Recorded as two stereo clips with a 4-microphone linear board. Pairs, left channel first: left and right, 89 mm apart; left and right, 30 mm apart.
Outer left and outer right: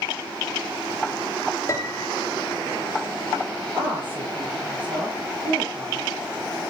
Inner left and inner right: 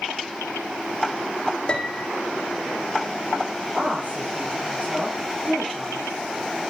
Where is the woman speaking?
65° right (ahead or behind), 6.5 m.